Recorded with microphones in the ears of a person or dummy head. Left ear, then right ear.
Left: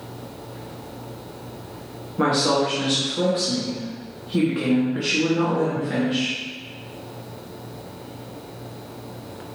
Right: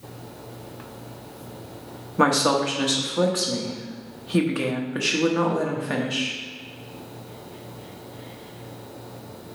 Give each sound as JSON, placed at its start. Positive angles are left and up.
{"t": 2.2, "sound": "a woman speaking", "side_deg": -40, "distance_m": 0.8}